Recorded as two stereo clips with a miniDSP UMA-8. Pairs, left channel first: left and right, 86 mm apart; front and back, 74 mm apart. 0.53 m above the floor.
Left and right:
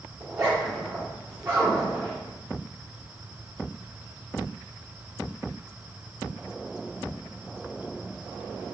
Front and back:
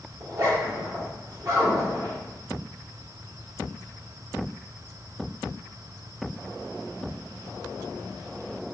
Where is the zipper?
145° right, 1.9 m.